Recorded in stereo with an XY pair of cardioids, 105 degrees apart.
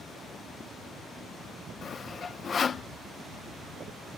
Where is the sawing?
45° left.